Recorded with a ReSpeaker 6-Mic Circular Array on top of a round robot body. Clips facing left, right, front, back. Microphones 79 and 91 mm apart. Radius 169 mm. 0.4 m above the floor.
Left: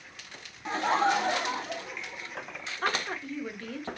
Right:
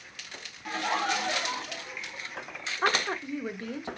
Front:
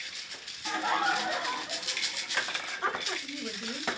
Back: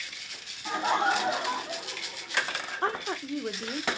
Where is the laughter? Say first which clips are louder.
Left 4 dB, back 3 dB; 120° left, 0.9 m; by 2.7 s 145° left, 1.9 m.